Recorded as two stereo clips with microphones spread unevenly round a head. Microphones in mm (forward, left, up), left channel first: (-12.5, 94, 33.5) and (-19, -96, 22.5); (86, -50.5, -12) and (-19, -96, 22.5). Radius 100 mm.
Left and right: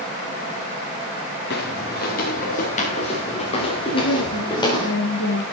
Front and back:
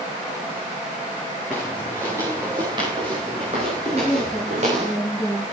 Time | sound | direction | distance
1.5 | footsteps | 120° left | 3.5 m
3.9 | a woman speaking | 110° left | 8 m